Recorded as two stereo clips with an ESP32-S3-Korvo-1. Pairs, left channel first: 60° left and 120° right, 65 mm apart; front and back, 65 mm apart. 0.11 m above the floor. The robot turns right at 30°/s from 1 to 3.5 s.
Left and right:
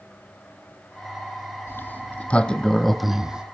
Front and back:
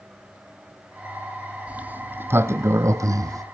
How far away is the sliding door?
About 0.8 m.